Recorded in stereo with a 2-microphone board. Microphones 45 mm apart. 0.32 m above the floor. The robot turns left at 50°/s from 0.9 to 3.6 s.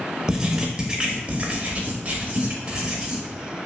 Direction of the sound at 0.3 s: 40° right.